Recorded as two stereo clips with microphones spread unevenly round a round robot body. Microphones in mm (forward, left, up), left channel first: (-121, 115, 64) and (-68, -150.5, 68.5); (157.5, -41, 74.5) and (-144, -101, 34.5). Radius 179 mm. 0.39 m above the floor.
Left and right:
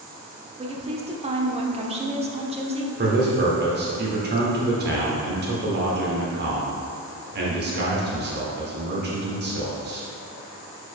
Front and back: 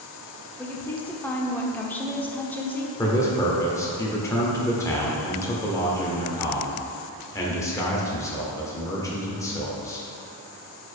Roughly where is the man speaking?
Right.